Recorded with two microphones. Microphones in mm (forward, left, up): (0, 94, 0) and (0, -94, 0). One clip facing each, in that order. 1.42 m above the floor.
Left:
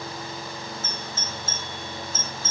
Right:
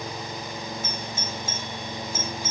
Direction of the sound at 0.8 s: 15° right (ahead or behind).